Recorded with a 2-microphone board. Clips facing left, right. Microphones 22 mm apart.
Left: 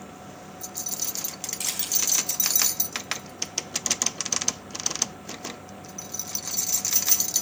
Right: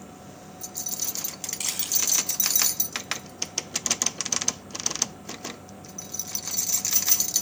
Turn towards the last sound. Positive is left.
turn(degrees=-15)  # may be behind; listen again after turning